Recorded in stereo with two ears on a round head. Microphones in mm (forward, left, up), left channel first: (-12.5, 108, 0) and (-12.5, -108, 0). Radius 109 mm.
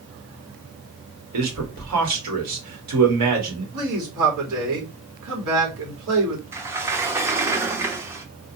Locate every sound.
1.3 s a man speaking: 75° right (ahead or behind), 2.5 m
3.7 s a man speaking: 65° right (ahead or behind), 3 m
6.5 s a sliding door: 10° right (ahead or behind), 0.7 m